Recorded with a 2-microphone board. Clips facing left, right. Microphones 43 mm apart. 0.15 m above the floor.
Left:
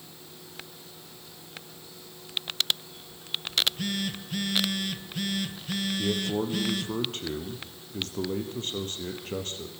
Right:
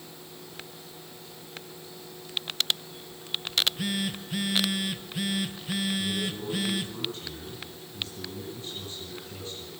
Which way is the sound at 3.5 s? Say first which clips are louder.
Even; 10° right (ahead or behind).